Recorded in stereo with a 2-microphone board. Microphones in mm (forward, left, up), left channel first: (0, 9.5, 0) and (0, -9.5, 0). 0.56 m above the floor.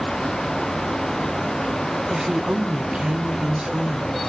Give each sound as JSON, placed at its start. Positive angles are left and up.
{"t": 2.1, "sound": "a woman speaking", "side_deg": -45, "distance_m": 1.2}